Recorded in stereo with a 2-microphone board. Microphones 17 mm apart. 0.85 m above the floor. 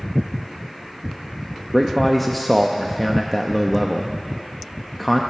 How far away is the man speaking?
About 0.8 m.